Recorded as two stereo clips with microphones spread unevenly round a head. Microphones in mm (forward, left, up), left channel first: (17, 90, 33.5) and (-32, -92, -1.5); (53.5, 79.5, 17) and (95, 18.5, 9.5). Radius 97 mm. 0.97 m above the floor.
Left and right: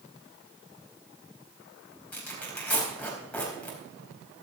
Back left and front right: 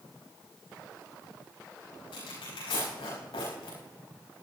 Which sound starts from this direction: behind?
Tearing paper, at 2.1 s.